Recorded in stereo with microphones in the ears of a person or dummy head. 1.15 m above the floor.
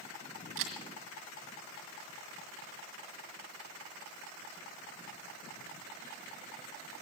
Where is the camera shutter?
65° right (ahead or behind), 1.9 m.